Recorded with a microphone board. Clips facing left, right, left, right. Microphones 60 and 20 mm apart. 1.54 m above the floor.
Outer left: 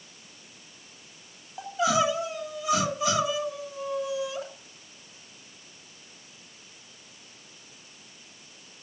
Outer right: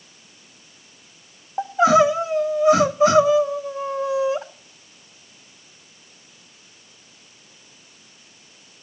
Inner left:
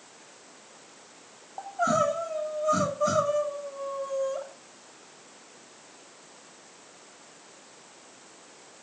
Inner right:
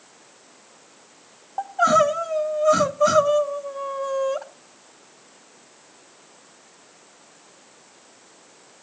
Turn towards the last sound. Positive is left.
turn(degrees=-40)  # may be behind; listen again after turning